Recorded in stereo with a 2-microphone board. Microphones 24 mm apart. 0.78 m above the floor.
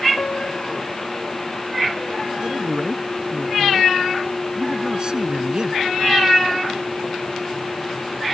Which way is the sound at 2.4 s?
35° right (ahead or behind).